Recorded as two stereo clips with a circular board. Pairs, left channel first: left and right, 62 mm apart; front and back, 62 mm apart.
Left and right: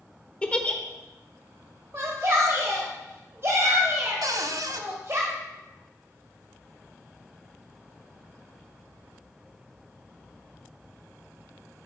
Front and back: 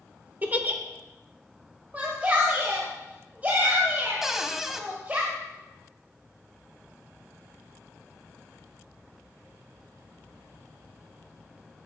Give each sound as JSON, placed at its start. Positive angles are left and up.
{"t": 0.4, "sound": "a giggle", "azimuth_deg": 150, "distance_m": 1.1}
{"t": 1.9, "sound": "a shout", "azimuth_deg": -120, "distance_m": 1.4}
{"t": 4.2, "sound": "a cupboard door", "azimuth_deg": -95, "distance_m": 0.8}